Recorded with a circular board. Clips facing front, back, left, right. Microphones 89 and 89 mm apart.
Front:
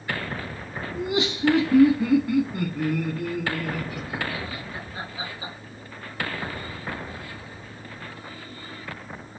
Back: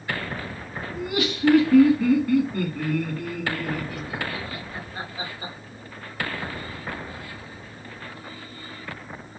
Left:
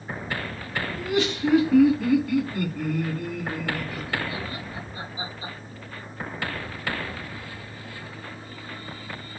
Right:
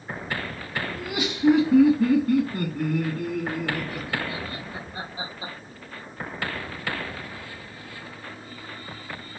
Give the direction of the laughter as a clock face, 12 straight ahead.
12 o'clock.